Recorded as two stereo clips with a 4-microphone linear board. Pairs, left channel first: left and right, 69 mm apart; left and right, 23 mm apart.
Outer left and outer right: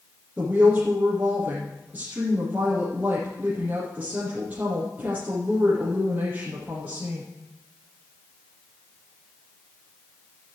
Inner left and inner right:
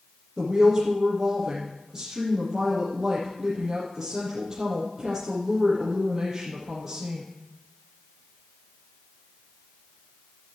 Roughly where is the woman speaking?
Right.